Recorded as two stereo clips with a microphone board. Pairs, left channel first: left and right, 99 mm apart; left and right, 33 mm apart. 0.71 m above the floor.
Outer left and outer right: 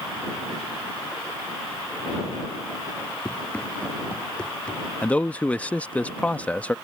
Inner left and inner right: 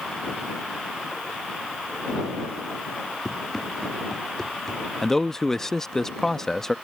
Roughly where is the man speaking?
Centre.